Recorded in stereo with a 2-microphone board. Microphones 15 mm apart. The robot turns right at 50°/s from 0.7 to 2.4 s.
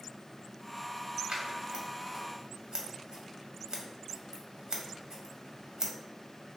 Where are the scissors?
65° right (ahead or behind), 0.7 m; by 5.9 s 50° right (ahead or behind), 0.7 m.